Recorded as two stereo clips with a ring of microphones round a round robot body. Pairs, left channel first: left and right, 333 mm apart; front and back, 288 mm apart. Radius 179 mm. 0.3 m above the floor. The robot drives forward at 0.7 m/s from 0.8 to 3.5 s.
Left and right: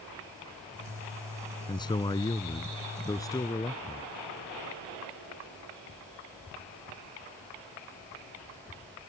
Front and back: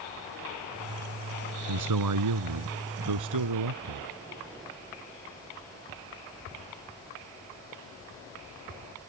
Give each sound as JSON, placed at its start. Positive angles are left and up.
{"t": 1.7, "sound": "a man speaking", "azimuth_deg": 165}